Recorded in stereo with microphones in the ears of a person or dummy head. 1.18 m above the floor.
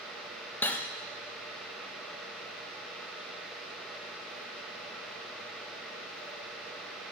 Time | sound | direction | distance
0.6 | cutlery clinking | 5° left (ahead or behind) | 0.5 m